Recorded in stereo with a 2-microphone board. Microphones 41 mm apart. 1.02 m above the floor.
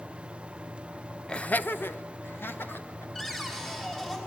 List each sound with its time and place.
1.3 s laughter: 20° left (ahead or behind), 0.7 m; by 3.0 s 65° left (ahead or behind), 2.5 m
3.1 s a cupboard door: 15° left (ahead or behind), 5.5 m